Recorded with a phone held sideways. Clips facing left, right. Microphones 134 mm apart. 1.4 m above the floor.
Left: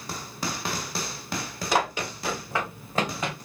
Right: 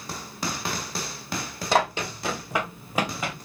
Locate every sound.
1.7 s running footsteps: 30° right (ahead or behind), 3 m; by 3.4 s centre (ahead or behind), 2 m